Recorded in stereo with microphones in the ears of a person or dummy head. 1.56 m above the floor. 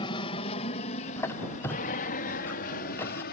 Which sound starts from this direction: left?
An aircraft, at 0.0 s.